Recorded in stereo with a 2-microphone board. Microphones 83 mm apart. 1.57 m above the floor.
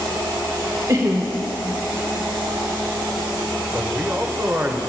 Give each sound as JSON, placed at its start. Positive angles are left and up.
{"t": 0.9, "sound": "laughter", "side_deg": -45, "distance_m": 1.5}
{"t": 3.7, "sound": "a man speaking", "side_deg": -25, "distance_m": 1.1}